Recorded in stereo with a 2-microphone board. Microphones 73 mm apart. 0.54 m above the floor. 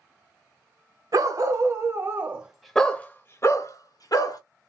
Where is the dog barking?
55° right (ahead or behind), 1.1 m; by 4.4 s 65° left (ahead or behind), 1.1 m.